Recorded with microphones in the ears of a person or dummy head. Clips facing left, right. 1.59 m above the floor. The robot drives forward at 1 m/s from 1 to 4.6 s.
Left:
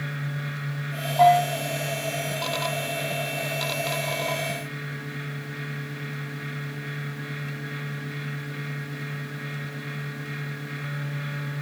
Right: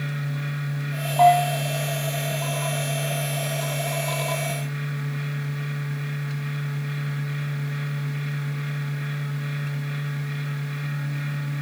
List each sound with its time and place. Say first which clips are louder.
1.2 s a bell: right 1 dB; 15° left (ahead or behind), 9.5 m; by 1.6 s 20° left (ahead or behind), 9 m